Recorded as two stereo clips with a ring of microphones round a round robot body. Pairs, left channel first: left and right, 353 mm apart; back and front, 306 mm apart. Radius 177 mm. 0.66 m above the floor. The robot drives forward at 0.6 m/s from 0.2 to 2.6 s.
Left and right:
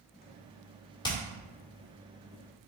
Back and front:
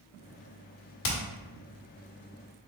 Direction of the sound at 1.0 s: 170° left.